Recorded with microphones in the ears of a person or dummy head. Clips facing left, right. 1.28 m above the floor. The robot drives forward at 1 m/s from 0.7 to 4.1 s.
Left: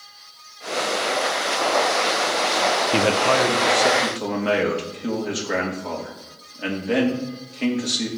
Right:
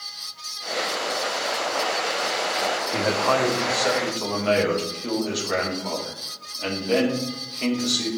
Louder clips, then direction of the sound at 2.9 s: Left 2 dB; 45° left (ahead or behind).